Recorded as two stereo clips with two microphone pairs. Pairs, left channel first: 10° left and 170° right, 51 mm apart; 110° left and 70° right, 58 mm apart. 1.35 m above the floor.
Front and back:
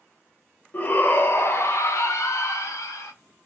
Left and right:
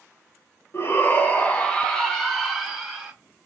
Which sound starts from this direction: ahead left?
A shout, at 0.7 s.